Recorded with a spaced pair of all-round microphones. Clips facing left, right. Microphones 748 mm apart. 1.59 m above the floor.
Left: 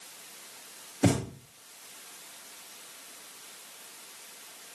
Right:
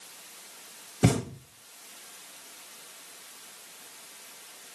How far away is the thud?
About 1.8 m.